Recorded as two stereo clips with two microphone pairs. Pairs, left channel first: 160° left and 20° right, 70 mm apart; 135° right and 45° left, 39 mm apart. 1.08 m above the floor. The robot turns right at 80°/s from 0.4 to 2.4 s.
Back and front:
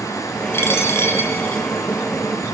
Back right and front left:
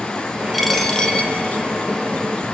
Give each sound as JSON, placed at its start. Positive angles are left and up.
{"t": 0.5, "sound": "a dropped coin", "azimuth_deg": 135, "distance_m": 1.2}